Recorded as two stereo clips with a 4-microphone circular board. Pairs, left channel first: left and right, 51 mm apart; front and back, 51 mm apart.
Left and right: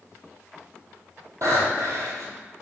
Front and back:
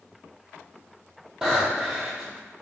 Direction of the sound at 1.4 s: 100° right.